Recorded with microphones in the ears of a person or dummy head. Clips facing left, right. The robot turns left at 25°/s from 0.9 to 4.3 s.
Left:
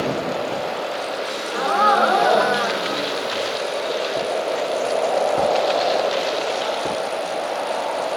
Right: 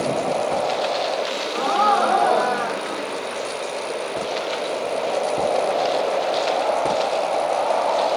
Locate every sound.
1.2 s a gasp: 175° left, 3 m; by 3.6 s 115° left, 3 m